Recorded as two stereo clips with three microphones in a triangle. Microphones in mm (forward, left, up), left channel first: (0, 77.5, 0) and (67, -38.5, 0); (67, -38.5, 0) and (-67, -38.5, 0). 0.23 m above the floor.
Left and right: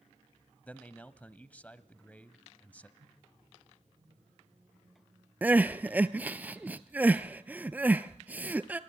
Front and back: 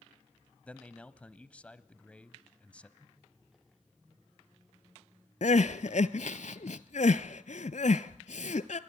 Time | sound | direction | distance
0.7 | a man speaking | 60° left | 1.0 m
3.0 | a microwave | 90° right | 8 m
5.4 | crying | 15° left | 0.8 m